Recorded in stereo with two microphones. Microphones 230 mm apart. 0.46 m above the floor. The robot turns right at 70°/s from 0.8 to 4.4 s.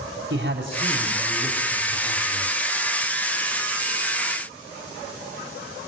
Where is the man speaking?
50° right, 3 m; by 2.5 s 75° left, 3 m.